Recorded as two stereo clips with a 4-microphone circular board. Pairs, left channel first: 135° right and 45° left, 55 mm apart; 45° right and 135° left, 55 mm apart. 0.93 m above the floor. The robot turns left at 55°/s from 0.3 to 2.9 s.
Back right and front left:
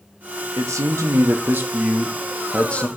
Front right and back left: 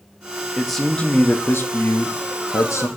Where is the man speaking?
50° left, 1.1 m; by 2.9 s 75° right, 1.1 m.